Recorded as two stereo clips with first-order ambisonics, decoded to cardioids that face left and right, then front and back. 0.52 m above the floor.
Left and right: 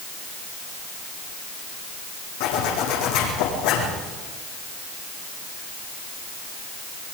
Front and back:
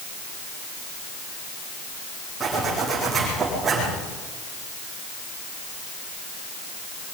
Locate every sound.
2.4 s a zipper: 105° left, 7 m